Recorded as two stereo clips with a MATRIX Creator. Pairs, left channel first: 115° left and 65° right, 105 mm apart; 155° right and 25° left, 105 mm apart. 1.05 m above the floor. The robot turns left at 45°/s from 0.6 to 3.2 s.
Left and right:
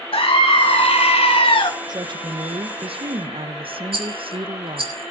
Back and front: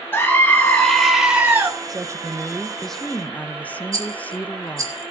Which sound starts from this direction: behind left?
A scream, at 0.1 s.